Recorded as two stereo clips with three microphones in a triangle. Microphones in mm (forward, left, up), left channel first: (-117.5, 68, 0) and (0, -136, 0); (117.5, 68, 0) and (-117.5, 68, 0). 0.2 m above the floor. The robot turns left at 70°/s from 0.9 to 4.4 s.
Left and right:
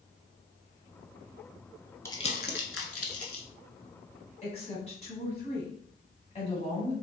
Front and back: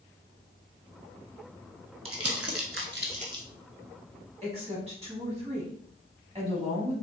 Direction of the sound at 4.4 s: 145° left.